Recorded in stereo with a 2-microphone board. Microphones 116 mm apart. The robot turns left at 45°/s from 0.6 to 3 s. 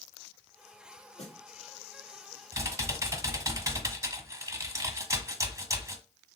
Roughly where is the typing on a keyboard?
Right.